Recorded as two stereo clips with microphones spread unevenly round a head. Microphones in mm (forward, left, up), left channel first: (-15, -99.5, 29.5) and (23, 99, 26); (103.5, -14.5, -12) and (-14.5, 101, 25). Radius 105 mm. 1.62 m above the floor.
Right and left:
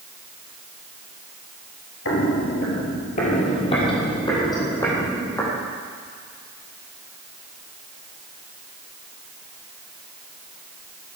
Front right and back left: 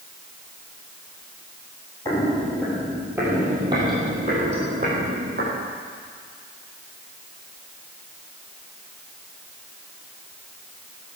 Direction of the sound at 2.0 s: 125° right.